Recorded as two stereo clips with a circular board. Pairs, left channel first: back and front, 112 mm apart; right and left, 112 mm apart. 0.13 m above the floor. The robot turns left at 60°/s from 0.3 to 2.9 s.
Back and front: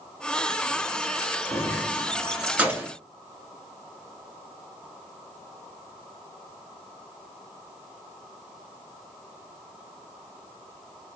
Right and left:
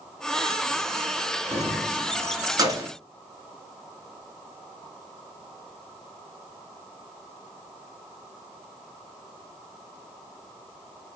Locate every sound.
1.5 s keys jangling: 135° left, 1.0 m; by 2.9 s 50° left, 1.0 m